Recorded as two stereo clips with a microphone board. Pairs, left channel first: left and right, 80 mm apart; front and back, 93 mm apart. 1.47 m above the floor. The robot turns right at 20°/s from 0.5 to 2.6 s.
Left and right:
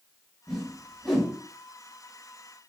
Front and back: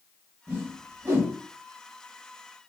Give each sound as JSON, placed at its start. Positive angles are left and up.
{"t": 0.5, "sound": "a whoosh", "azimuth_deg": 170, "distance_m": 0.9}